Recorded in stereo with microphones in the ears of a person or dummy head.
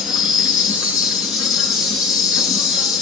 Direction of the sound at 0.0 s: Centre (ahead or behind).